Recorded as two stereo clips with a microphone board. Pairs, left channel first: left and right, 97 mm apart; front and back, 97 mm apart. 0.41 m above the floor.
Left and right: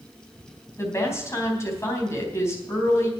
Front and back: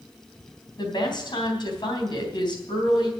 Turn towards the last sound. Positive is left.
turn(degrees=35)